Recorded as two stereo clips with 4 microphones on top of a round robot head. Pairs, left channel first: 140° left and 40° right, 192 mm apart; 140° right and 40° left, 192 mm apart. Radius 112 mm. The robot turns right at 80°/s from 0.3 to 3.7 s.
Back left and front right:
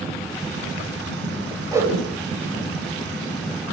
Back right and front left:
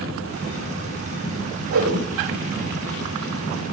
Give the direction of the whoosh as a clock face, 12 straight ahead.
11 o'clock.